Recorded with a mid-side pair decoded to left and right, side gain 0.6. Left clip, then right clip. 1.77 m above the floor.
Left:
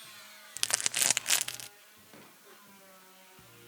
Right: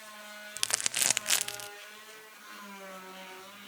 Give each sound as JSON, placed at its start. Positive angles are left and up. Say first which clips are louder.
{"t": 0.6, "sound": "crumpling", "louder": "even", "azimuth_deg": 0, "distance_m": 0.7}